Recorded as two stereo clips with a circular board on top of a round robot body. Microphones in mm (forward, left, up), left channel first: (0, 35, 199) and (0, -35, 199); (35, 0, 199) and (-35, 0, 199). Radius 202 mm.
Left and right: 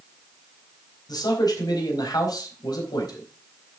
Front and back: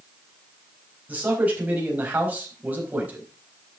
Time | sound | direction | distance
1.1 | a man speaking | 115° left | 4.5 m